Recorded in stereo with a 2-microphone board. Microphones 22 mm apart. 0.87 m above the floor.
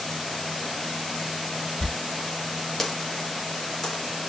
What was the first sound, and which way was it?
A dropped coin, 20° left (ahead or behind).